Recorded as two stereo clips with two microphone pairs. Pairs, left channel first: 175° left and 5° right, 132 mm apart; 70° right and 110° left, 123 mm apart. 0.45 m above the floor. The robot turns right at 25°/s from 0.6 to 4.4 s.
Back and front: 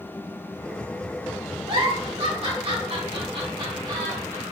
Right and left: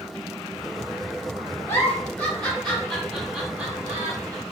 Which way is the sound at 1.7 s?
10° right.